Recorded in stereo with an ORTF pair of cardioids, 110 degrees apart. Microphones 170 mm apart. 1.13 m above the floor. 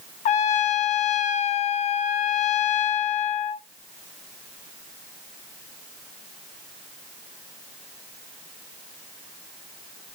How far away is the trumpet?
About 0.7 m.